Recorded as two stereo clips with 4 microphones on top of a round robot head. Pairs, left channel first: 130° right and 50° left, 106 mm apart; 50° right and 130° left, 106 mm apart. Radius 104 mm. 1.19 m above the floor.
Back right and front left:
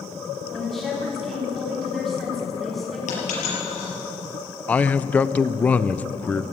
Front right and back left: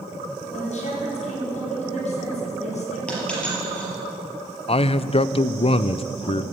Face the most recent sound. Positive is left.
turn(degrees=-55)